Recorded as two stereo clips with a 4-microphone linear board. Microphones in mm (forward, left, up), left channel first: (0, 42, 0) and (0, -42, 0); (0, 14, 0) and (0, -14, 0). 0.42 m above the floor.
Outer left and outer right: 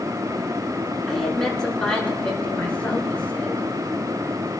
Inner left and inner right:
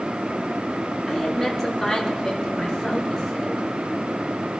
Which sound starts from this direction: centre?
A woman speaking, at 1.1 s.